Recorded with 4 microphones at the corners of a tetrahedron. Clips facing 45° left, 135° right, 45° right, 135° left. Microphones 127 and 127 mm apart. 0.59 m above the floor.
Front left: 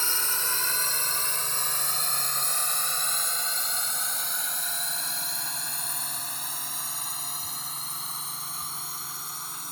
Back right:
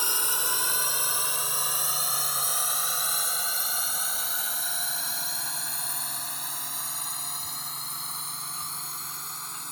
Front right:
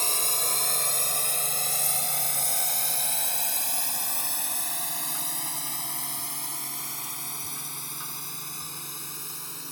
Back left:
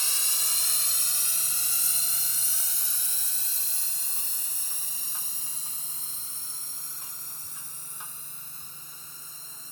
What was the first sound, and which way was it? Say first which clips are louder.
A drone: back right 1 dB, front right 10 dB; 60° right.